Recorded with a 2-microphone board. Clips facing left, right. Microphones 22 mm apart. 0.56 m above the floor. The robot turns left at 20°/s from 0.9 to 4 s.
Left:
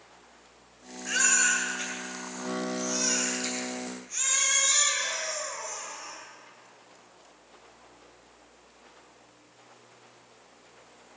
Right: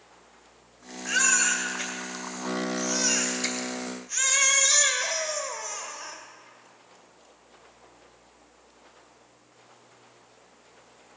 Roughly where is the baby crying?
Ahead.